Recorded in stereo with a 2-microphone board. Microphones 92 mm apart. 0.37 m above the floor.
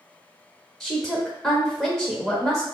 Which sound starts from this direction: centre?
A woman speaking, at 0.8 s.